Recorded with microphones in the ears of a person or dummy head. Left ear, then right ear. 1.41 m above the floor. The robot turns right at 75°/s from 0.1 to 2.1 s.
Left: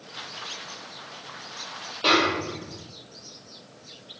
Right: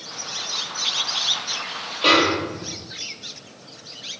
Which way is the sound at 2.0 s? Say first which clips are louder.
Right 4 dB; 5° right (ahead or behind).